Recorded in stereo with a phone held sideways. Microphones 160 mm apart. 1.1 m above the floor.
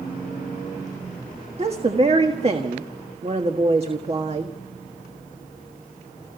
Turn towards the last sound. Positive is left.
turn(degrees=-40)  # may be behind; listen again after turning